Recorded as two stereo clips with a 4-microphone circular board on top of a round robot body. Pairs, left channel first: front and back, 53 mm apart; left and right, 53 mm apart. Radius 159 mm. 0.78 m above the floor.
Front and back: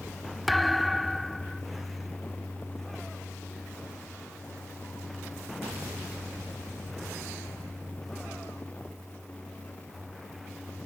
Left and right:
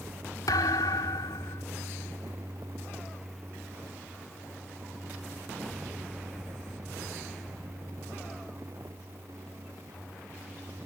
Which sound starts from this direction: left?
A thud, at 0.5 s.